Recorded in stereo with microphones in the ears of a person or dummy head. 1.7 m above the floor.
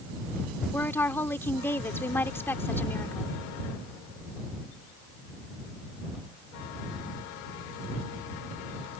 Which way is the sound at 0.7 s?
5° left (ahead or behind).